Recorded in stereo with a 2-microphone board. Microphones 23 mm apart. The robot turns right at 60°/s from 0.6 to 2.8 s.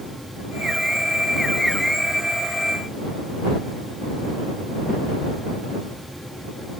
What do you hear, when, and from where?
Only background noise.